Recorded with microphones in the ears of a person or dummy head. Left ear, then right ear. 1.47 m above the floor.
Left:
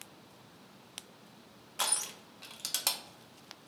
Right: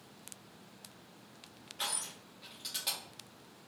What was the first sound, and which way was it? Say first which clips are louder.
Crushing: left 4 dB; 45° left (ahead or behind).